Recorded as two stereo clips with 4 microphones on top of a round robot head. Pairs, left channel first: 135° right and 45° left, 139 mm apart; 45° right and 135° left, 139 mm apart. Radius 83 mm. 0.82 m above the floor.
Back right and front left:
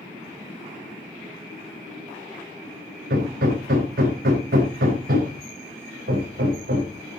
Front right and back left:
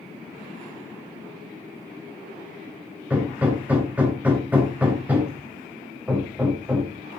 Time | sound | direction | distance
3.1 | hammering | 55° left | 4 m